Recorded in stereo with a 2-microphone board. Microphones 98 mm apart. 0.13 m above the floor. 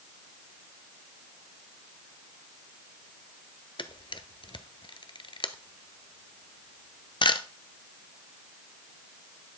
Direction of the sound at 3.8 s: 55° left (ahead or behind).